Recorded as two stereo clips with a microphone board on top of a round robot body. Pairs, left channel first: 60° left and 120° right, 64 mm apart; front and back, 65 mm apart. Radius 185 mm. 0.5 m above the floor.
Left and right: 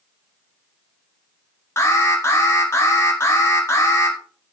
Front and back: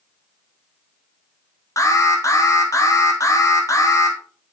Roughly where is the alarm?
Ahead.